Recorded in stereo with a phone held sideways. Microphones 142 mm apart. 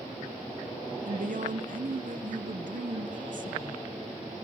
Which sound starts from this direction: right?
A woman speaking, at 1.1 s.